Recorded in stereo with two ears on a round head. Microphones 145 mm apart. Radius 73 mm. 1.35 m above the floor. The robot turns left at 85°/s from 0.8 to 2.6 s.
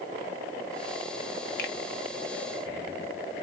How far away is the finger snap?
About 0.8 m.